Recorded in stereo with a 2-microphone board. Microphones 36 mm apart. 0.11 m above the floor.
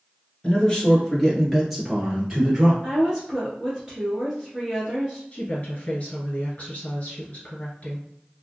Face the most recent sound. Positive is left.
turn(degrees=40)  # may be behind; listen again after turning